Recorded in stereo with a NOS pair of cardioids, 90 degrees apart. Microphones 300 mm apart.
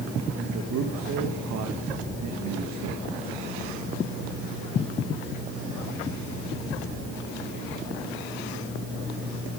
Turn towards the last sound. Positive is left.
turn(degrees=-70)